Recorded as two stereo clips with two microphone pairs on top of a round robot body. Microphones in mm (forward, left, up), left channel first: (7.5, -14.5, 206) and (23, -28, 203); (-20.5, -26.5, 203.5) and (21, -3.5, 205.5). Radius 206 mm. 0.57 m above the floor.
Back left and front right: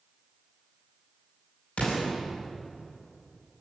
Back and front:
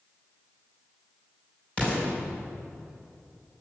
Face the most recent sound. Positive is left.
turn(degrees=140)